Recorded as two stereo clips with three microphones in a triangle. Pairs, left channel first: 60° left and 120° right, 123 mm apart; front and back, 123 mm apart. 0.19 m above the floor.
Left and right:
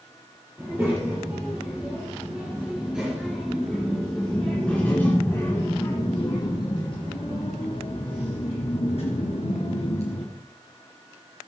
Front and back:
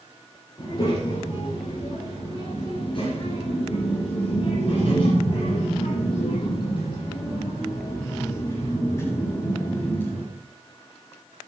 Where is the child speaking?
50° right, 4 m; by 10.3 s 75° left, 3 m.